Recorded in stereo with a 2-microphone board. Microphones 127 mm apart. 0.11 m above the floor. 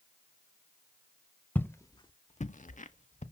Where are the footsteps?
15° left (ahead or behind), 0.7 m; by 3.2 s 65° left (ahead or behind), 0.8 m.